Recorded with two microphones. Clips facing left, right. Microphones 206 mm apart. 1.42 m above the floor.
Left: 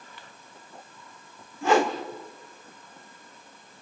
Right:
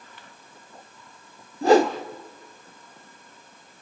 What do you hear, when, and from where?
1.6 s a whoosh: 40° right (ahead or behind), 1.7 m